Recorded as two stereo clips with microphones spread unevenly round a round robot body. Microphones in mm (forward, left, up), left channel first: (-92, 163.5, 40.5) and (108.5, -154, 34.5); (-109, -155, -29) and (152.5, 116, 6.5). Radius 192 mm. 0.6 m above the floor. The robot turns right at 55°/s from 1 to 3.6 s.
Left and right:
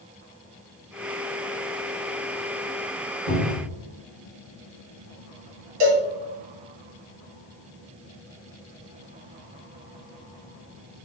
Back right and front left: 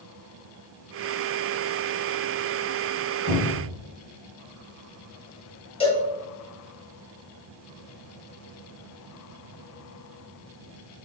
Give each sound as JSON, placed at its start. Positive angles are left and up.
{"t": 3.3, "sound": "a cupboard door", "azimuth_deg": -60, "distance_m": 1.9}
{"t": 5.8, "sound": "a cowbell", "azimuth_deg": -55, "distance_m": 1.2}